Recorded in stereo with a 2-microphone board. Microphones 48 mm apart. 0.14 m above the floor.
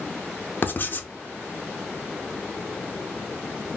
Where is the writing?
40° left (ahead or behind), 0.5 m.